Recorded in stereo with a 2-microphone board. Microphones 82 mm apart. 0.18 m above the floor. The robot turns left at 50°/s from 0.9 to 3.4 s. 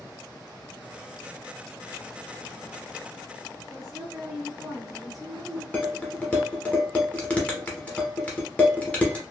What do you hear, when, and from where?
3.7 s a woman speaking: centre (ahead or behind), 1.5 m
5.7 s dishes clattering: 15° left (ahead or behind), 0.9 m